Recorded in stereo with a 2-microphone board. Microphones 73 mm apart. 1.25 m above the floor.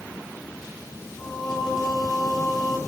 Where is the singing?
80° left, 4 m.